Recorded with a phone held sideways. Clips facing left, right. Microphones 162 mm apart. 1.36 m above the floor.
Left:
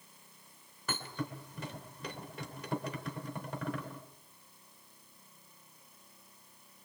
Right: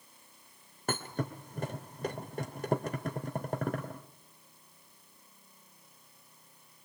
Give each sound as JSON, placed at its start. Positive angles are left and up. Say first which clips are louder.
{"t": 0.9, "sound": "a thud", "louder": "right 4 dB", "side_deg": -50, "distance_m": 2.5}